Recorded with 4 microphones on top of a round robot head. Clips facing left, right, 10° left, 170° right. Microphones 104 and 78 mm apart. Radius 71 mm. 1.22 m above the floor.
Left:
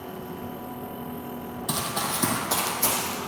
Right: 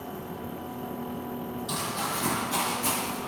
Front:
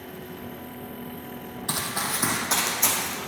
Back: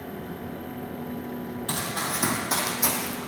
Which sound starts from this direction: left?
Running footsteps, at 1.7 s.